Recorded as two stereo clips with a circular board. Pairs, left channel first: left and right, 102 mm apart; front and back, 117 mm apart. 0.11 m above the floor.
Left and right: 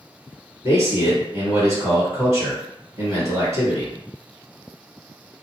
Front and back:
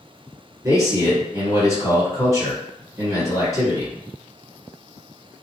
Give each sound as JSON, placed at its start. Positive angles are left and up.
{"t": 0.6, "sound": "a man speaking", "azimuth_deg": -130, "distance_m": 1.9}